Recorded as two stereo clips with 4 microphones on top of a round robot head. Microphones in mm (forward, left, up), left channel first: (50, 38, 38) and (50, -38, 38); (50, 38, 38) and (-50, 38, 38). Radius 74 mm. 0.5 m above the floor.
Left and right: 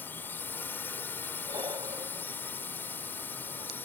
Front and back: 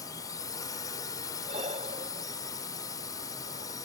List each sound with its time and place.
0.0 s a drone: 35° left
1.4 s breathing: 140° right